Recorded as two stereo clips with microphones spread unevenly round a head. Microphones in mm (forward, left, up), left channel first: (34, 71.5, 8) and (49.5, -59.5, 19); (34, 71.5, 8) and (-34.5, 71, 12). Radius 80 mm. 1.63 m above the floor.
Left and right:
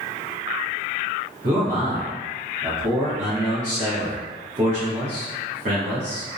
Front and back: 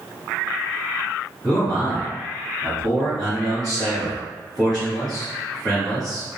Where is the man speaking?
90° right, 0.9 m.